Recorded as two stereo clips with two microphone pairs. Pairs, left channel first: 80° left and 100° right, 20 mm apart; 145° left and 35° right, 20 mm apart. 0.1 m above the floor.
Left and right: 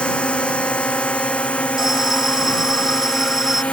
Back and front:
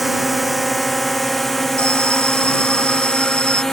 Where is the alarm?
175° right.